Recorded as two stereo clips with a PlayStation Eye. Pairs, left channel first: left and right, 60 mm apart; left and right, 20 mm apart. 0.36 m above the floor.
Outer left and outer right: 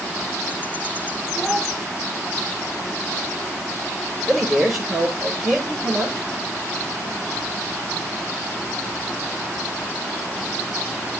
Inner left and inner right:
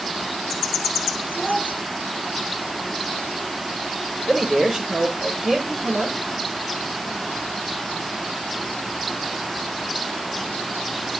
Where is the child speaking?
5° left (ahead or behind), 3 m.